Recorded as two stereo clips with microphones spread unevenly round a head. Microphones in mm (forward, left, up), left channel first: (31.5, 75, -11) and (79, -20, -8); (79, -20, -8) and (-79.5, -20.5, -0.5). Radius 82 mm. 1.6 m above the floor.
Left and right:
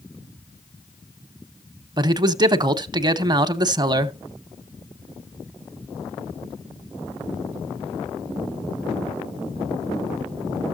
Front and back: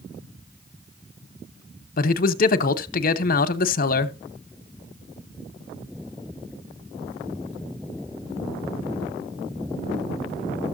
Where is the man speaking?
25° right, 0.9 m.